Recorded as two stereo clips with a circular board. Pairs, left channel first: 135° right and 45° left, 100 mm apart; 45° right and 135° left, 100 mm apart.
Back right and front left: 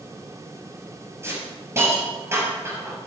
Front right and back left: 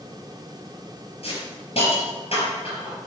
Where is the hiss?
20° right, 4.5 m.